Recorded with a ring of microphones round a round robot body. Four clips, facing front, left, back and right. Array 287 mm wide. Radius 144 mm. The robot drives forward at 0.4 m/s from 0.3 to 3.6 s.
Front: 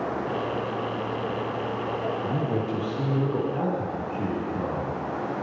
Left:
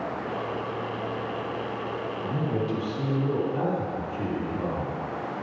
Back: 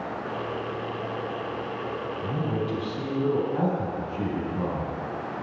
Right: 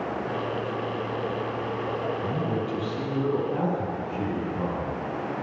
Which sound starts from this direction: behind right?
A man speaking, at 2.2 s.